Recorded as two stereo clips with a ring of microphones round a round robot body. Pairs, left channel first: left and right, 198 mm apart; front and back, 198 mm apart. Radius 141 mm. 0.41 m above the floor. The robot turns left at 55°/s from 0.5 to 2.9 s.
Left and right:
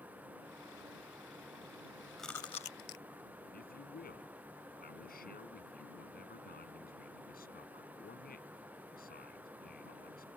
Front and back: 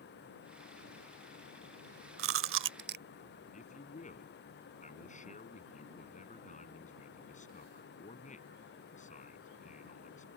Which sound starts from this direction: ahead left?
A man speaking, at 3.5 s.